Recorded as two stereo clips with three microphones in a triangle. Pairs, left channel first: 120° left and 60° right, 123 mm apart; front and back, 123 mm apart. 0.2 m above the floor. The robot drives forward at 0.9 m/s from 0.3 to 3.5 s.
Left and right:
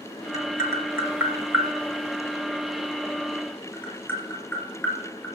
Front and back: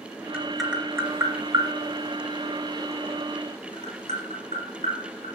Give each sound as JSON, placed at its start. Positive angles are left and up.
{"t": 0.3, "sound": "tapping", "azimuth_deg": -75, "distance_m": 1.2}